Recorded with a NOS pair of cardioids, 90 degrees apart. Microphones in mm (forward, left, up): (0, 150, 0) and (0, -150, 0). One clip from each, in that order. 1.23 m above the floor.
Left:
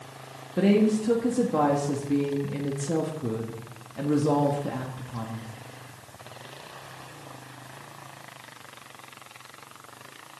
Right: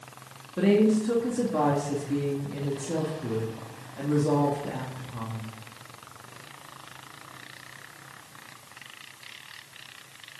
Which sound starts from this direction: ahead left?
A woman speaking, at 0.6 s.